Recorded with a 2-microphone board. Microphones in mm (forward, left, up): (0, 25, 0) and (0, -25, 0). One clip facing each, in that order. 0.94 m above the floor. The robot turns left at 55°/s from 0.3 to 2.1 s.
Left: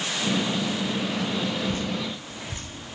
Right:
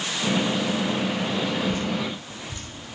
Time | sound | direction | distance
1.7 | dripping | 55° left (ahead or behind) | 4.5 m